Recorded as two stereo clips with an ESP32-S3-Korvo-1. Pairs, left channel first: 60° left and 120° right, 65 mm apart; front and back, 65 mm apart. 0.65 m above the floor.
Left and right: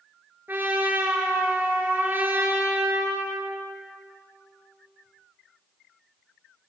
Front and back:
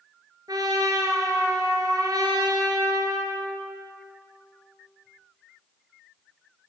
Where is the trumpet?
Straight behind, 4 m.